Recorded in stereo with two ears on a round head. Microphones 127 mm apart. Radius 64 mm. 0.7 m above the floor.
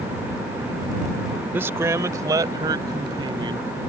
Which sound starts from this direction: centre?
A man speaking, at 1.5 s.